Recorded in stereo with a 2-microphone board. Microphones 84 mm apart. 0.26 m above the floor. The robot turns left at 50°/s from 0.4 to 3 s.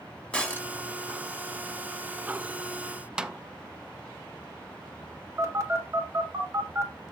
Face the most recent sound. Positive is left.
turn(degrees=-40)  # may be behind; listen again after turning